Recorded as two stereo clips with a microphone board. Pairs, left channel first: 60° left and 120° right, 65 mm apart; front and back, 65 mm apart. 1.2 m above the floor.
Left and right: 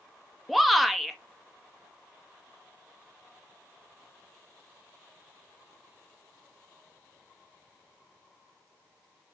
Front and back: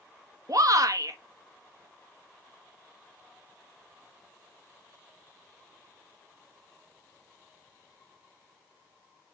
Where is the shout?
150° left, 1.4 m.